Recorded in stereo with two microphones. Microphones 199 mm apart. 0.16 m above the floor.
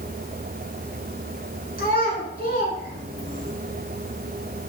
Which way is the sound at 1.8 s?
50° left (ahead or behind).